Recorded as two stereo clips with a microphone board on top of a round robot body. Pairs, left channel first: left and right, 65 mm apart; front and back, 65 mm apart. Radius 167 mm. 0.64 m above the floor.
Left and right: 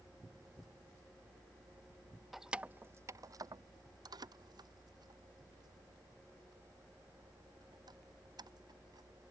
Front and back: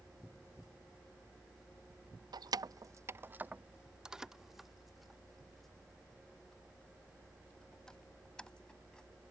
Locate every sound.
2.3 s keys jangling: 175° right; by 9.1 s 80° right